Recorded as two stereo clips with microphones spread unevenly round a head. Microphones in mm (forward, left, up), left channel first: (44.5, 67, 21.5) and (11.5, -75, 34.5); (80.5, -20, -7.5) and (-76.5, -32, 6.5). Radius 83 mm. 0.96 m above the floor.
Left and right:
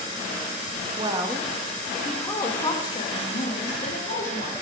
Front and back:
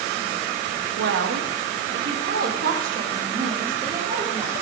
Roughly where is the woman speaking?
Behind.